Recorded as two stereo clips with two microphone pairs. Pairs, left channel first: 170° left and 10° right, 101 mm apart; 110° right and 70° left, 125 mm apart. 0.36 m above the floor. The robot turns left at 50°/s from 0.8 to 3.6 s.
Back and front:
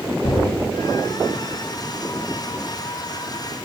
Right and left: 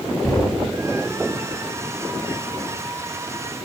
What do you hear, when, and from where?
0.2 s knocking: 165° left, 2.5 m